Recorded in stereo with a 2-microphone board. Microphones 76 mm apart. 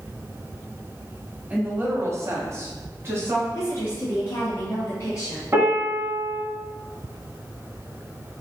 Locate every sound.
1.5 s a woman speaking: 20° right (ahead or behind), 1.5 m; by 3.4 s 30° right (ahead or behind), 2.5 m
3.5 s a woman speaking: 35° left (ahead or behind), 1.6 m
5.5 s a piano: 35° right (ahead or behind), 1.9 m